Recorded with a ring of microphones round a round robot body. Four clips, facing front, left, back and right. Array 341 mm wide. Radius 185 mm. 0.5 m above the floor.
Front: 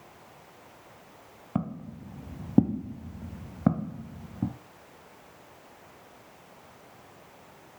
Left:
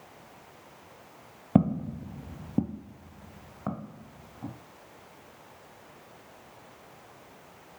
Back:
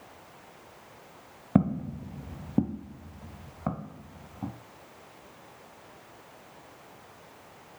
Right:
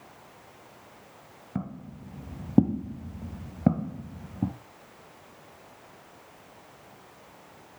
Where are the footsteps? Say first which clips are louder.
Left 12 dB, back 8 dB; 125° left, 0.7 m; by 4.5 s 55° right, 2.0 m.